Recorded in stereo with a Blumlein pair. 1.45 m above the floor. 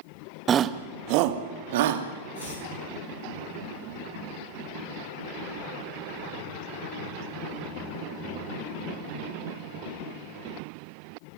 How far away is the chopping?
About 9 m.